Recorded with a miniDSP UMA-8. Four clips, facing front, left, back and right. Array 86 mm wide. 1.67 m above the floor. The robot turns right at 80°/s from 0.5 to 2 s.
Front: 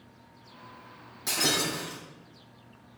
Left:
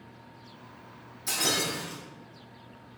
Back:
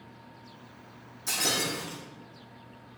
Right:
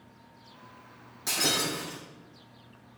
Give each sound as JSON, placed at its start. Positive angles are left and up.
{"t": 1.3, "sound": "breaking glass", "azimuth_deg": -45, "distance_m": 5.0}